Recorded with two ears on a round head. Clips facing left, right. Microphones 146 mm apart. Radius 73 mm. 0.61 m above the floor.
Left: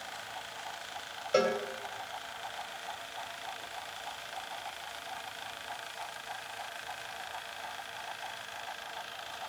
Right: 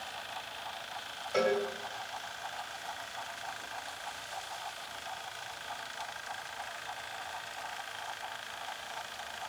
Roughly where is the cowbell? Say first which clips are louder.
Left 1 dB; left.